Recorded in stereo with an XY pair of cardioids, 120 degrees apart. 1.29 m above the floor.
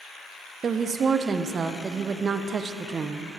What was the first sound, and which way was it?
A woman speaking, 35° right.